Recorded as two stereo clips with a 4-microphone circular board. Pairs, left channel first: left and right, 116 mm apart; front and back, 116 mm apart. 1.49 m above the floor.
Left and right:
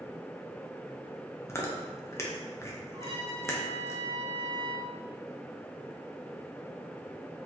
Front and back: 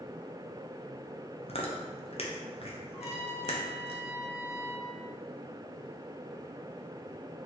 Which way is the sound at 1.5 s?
25° left.